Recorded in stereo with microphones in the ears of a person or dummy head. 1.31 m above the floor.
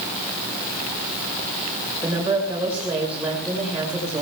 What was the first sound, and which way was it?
A woman speaking, 5° right (ahead or behind).